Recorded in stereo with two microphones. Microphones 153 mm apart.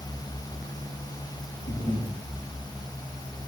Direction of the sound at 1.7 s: 85° left.